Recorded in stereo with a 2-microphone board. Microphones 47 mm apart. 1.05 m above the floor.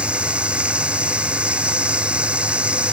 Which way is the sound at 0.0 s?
25° right (ahead or behind).